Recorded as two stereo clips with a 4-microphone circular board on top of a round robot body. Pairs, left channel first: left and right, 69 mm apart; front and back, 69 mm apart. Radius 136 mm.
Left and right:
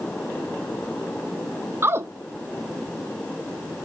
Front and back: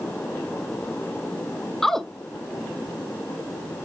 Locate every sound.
1.8 s a woman speaking: 80° right, 0.8 m